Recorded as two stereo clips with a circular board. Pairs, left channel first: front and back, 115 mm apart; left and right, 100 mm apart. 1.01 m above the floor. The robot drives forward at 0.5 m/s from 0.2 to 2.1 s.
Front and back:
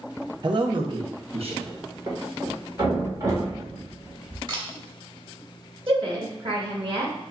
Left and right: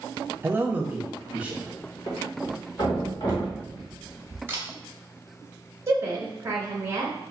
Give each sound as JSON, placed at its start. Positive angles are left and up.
{"t": 0.4, "sound": "a man speaking", "azimuth_deg": -145, "distance_m": 0.7}
{"t": 2.1, "sound": "a thud", "azimuth_deg": 120, "distance_m": 1.5}
{"t": 4.5, "sound": "a camera shutter", "azimuth_deg": -145, "distance_m": 1.2}
{"t": 5.9, "sound": "a woman speaking", "azimuth_deg": -145, "distance_m": 1.5}